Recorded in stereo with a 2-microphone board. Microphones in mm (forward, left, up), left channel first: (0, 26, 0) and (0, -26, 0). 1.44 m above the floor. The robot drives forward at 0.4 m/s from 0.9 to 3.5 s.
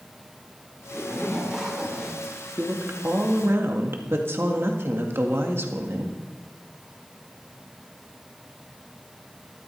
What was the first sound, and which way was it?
A zipper, 5° right (ahead or behind).